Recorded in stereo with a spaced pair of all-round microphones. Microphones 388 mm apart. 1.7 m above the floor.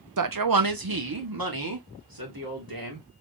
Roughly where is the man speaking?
Right.